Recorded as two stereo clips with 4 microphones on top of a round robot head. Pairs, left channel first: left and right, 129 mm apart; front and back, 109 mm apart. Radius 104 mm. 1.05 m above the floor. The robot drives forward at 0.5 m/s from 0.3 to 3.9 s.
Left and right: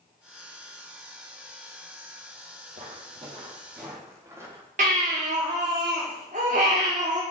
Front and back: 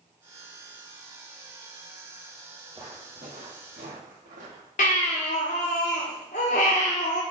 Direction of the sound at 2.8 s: 110° right.